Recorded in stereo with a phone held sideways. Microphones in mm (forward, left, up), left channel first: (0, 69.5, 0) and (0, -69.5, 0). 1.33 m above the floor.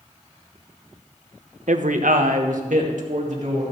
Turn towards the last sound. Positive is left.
turn(degrees=-65)  # may be behind; listen again after turning